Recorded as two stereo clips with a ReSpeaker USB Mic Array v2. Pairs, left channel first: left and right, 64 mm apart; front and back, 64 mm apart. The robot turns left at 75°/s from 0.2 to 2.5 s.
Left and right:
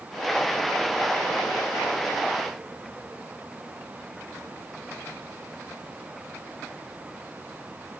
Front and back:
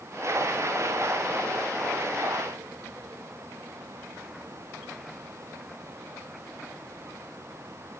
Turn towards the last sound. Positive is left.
No sound to turn to.